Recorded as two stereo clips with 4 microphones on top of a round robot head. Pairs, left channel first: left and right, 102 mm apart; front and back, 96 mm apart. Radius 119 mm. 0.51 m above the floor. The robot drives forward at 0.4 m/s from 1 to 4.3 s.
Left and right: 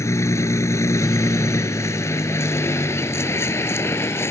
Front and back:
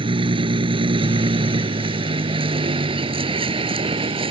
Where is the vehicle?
150° left; by 4.3 s 155° left.